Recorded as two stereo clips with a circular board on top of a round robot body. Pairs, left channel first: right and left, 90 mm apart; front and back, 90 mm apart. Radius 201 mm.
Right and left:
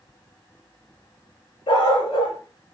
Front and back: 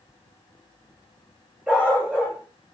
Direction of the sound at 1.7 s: 105° right.